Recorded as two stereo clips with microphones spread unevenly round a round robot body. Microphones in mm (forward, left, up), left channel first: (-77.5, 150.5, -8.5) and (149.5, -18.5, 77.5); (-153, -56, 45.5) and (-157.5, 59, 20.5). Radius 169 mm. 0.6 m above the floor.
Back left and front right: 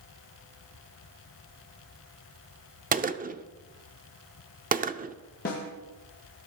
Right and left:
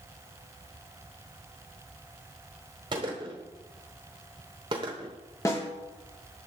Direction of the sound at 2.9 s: 30° left.